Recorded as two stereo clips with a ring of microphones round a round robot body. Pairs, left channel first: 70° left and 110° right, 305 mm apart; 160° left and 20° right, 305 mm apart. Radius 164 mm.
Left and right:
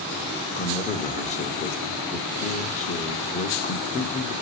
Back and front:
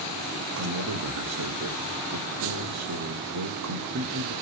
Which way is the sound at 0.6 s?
Straight ahead.